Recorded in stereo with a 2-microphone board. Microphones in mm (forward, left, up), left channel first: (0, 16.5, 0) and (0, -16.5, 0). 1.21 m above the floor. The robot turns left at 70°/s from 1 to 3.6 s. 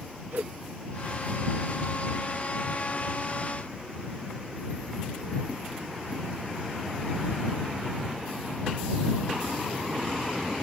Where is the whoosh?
75° right (ahead or behind).